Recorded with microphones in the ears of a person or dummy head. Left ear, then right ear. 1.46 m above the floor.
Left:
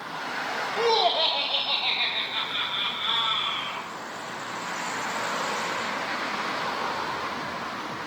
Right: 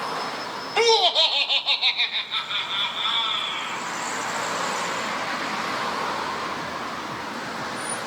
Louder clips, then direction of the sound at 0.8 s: Right 5 dB; 65° right (ahead or behind).